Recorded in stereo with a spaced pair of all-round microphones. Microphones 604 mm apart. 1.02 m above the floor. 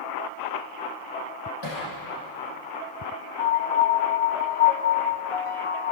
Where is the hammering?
40° left (ahead or behind), 9.5 m.